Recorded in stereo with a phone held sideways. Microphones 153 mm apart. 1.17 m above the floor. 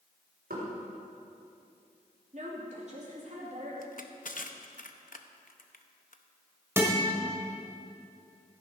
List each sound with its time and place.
0.5 s knocking: 80° right, 4 m
2.3 s a woman speaking: 50° right (ahead or behind), 2.5 m
3.8 s crushing: 60° left (ahead or behind), 0.7 m
6.8 s a guitar: 15° right (ahead or behind), 1.8 m